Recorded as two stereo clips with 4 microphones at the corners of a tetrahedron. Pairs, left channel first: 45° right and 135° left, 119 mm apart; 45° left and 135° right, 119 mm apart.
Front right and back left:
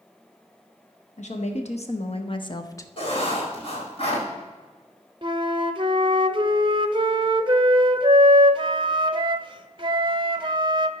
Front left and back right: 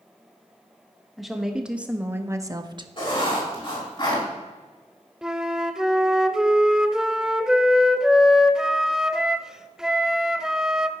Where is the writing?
Straight ahead, 4.5 m.